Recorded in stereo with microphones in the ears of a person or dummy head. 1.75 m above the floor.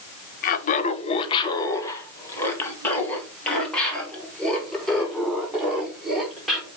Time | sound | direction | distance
0.4 | laughter | 50° left (ahead or behind) | 0.9 m